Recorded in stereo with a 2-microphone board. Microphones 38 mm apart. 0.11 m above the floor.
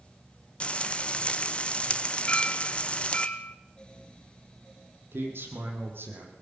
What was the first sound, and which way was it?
Frying, 30° left (ahead or behind).